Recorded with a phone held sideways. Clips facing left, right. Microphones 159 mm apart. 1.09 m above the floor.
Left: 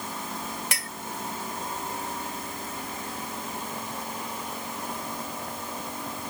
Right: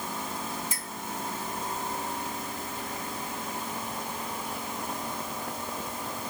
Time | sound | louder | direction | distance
0.7 | a clink | left 3 dB | 80° left | ?